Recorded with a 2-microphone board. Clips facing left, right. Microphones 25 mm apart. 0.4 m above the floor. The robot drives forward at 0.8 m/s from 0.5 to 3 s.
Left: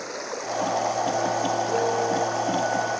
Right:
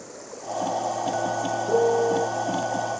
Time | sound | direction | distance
0.0 | running water | 65° left (ahead or behind) | ?
1.7 | a piano | 55° right (ahead or behind) | ?